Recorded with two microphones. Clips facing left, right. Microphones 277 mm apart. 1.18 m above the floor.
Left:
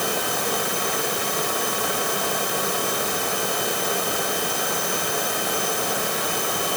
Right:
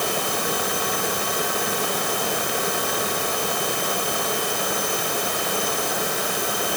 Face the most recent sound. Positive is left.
No sound to turn to.